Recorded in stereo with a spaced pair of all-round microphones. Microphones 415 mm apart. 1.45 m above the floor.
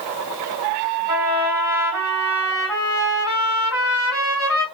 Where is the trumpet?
85° left, 2.5 m.